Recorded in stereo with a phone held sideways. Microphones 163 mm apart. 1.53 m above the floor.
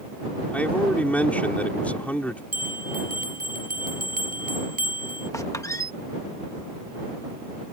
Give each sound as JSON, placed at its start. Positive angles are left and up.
{"t": 0.5, "sound": "a man speaking", "side_deg": 10}
{"t": 2.5, "sound": "a bell", "side_deg": -60}
{"t": 5.3, "sound": "a squeak", "side_deg": 20}